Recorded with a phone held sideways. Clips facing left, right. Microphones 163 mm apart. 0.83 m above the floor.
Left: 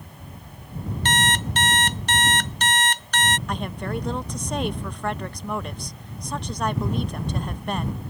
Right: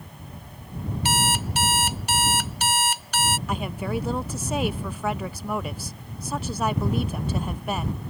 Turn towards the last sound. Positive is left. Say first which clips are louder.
# right 1 dB
turn(degrees=-5)  # may be behind; listen again after turning